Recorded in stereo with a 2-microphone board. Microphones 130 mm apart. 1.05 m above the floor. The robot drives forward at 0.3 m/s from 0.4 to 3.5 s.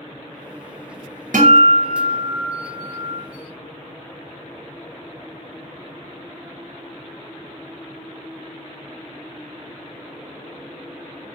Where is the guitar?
75° right (ahead or behind), 0.6 m; by 3.2 s 45° right (ahead or behind), 0.8 m.